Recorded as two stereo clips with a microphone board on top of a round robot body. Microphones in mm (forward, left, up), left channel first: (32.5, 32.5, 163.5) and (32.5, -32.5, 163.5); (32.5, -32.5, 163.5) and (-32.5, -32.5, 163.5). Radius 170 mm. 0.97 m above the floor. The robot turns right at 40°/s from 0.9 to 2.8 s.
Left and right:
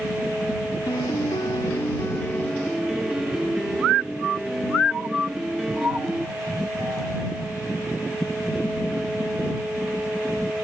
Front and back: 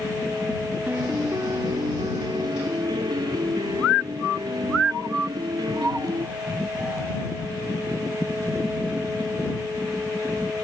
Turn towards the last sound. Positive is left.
turn(degrees=-175)